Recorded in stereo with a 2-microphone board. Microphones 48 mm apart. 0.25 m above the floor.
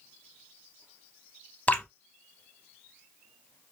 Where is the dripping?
35° left (ahead or behind), 0.7 m.